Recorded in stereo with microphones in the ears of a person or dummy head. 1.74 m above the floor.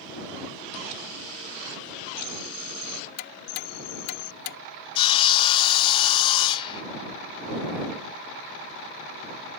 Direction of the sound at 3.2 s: 70° left (ahead or behind).